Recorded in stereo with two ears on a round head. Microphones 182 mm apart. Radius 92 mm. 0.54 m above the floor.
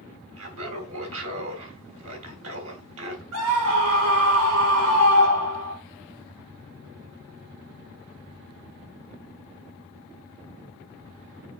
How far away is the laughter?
About 3 m.